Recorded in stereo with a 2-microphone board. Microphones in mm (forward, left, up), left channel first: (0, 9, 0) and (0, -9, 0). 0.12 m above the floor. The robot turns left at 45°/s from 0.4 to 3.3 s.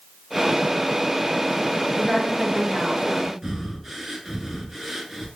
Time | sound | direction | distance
2.0 | a woman speaking | 65° left | 2.0 m
3.4 | breathing | 15° right (ahead or behind) | 1.0 m